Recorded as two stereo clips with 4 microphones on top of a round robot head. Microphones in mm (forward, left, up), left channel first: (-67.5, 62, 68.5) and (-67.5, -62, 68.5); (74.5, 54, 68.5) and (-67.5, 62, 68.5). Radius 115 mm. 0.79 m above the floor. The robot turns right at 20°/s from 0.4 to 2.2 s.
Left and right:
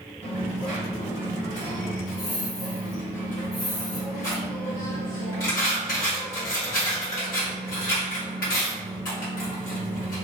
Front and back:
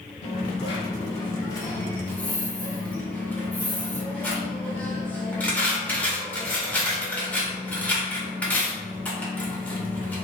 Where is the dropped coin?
40° left, 1.0 m; by 10.2 s 75° left, 1.0 m.